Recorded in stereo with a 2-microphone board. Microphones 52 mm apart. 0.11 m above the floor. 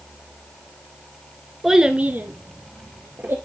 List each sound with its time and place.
1.6 s a child speaking: 5° right (ahead or behind), 1.2 m; by 3.4 s 45° right (ahead or behind), 2.5 m